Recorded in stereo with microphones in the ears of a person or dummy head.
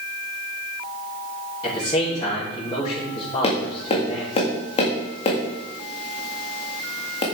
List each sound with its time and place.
1.6 s a man speaking: 30° left (ahead or behind), 3 m
3.4 s tapping: 40° left (ahead or behind), 1.8 m